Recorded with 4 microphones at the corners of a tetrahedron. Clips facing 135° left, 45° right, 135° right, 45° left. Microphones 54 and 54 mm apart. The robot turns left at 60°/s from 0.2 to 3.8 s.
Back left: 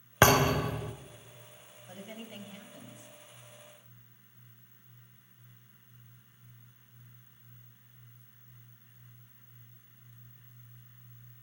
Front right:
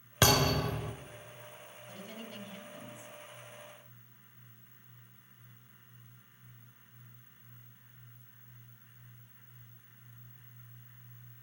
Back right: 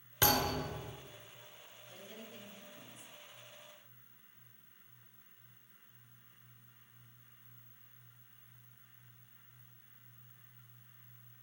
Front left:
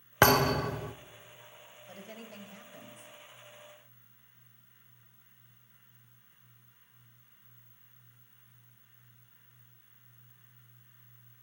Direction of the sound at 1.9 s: 85° left.